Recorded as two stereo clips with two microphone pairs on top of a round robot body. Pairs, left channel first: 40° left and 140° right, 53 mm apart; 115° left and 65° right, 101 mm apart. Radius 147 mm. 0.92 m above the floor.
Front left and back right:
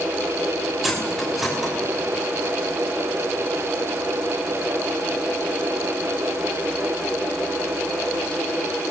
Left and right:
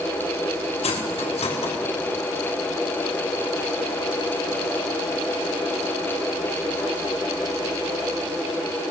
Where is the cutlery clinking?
130° left, 3 m.